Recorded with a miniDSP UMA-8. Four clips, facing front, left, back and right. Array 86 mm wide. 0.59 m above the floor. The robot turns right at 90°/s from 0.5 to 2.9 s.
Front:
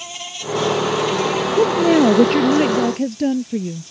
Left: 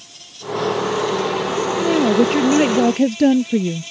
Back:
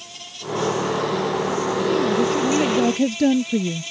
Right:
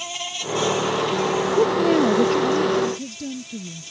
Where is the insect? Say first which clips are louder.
Right 4 dB, front 5 dB; 65° right; by 3.9 s 150° left.